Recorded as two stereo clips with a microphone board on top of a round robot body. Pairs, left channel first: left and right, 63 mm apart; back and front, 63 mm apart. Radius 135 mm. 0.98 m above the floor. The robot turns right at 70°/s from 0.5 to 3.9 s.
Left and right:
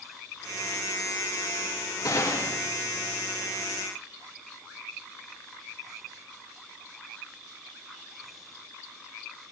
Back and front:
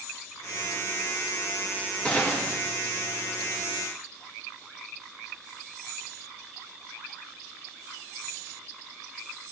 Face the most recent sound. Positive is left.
turn(degrees=-125)